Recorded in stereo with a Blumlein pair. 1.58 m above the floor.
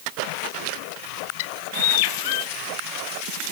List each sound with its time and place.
1.4 s a bird: 50° left